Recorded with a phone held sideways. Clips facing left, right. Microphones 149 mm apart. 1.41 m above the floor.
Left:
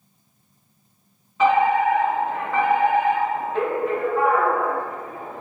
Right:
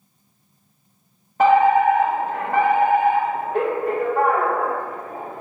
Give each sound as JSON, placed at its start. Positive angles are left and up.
{"t": 1.4, "sound": "a fire alarm", "side_deg": -50, "distance_m": 3.0}